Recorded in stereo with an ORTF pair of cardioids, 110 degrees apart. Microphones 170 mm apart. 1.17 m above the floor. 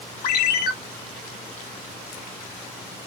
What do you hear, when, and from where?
0.2 s a ringtone: 65° left, 4.5 m